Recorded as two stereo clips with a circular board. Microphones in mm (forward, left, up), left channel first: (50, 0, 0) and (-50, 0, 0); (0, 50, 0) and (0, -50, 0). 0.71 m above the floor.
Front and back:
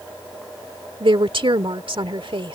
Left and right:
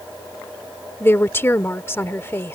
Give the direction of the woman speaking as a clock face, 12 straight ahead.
7 o'clock.